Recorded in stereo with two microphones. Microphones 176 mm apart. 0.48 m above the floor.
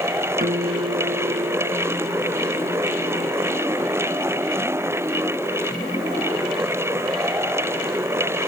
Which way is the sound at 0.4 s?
55° right (ahead or behind).